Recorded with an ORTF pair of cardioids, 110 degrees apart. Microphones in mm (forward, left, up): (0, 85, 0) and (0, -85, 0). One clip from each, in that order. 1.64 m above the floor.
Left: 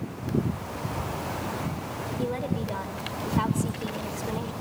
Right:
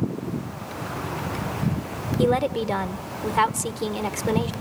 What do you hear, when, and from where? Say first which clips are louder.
2.2 s a woman speaking: right 11 dB; 65° right, 1.4 m